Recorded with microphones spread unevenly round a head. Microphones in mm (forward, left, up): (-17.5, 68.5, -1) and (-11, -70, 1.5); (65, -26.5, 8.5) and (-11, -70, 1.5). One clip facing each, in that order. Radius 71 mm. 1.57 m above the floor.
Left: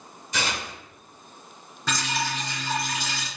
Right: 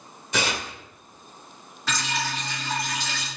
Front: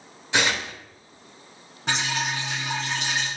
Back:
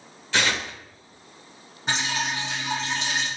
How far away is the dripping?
About 1.7 m.